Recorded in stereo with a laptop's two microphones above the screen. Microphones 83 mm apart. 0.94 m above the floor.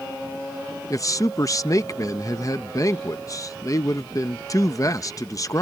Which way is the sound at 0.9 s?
40° left (ahead or behind).